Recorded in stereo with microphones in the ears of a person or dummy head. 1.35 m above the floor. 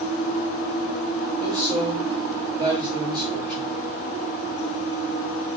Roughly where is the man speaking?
Right.